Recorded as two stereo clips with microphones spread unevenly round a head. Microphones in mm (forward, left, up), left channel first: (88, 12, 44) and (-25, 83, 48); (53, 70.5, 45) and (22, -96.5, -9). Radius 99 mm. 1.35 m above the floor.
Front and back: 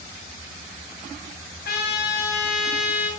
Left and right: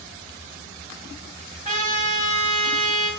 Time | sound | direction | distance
1.6 | a trumpet | 60° right | 6.5 m